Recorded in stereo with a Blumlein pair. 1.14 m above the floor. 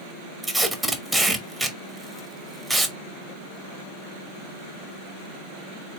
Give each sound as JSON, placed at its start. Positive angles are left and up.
{"t": 0.4, "sound": "tape being pulled", "azimuth_deg": -5, "distance_m": 1.0}